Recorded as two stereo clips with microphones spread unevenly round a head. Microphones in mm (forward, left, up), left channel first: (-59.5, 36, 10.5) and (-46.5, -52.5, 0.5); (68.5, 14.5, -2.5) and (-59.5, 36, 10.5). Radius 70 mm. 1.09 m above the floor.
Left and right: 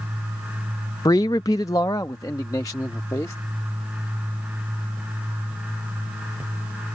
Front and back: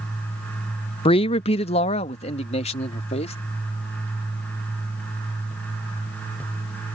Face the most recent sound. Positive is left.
turn(degrees=30)